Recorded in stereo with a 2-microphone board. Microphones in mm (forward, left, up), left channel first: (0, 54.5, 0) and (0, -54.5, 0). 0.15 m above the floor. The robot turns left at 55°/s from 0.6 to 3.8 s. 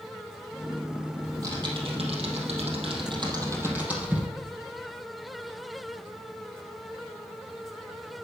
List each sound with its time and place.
1.2 s typing on a keyboard: 25° right (ahead or behind), 3.5 m; by 4.3 s 15° right (ahead or behind), 3.5 m